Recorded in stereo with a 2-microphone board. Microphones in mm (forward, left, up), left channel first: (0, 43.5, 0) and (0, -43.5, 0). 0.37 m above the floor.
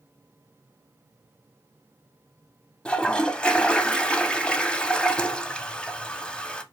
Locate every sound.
2.9 s a toilet flushing: 10° left (ahead or behind), 0.6 m